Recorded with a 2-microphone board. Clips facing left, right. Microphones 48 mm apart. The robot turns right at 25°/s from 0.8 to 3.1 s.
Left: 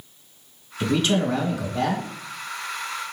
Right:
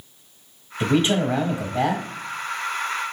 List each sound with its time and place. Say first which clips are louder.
0.8 s a man speaking: right 2 dB; 25° right (ahead or behind), 1.0 m; by 2.0 s 20° right (ahead or behind), 1.0 m